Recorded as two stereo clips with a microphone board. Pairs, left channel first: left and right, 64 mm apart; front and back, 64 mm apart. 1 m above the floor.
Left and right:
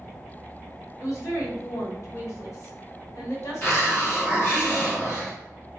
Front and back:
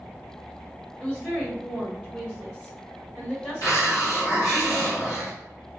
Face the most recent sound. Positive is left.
turn(degrees=30)